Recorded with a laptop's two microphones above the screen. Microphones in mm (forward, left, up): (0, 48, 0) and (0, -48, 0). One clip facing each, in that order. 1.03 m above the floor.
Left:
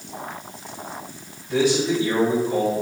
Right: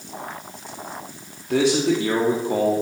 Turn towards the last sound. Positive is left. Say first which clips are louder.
# right 1 dB
turn(degrees=-75)  # may be behind; listen again after turning